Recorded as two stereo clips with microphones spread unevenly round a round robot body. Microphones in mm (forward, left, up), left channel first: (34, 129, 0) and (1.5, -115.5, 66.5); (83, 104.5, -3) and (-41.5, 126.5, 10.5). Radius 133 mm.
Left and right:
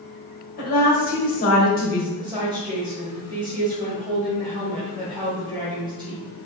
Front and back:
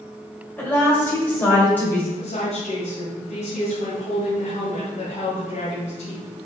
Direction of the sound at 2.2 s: 20° right.